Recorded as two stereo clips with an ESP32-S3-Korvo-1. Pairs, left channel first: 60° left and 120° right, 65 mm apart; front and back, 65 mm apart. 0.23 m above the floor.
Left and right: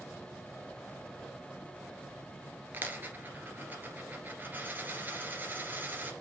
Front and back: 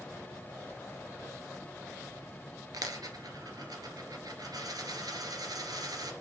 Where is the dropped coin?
Straight behind, 1.9 m.